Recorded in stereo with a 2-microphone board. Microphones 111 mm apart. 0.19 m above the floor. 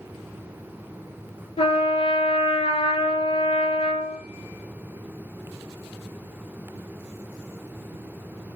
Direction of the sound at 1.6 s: 70° left (ahead or behind).